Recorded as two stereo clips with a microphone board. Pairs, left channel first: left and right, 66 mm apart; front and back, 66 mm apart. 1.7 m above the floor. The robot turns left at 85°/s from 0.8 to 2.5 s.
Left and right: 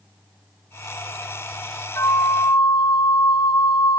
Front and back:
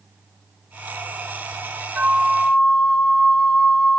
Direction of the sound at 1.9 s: 120° left.